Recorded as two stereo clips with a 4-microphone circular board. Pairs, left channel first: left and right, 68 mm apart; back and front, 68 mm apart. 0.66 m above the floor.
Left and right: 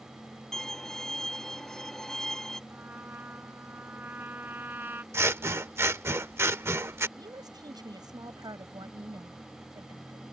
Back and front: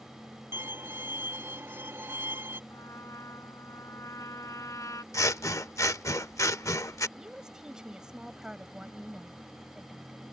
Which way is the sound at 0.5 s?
15° left.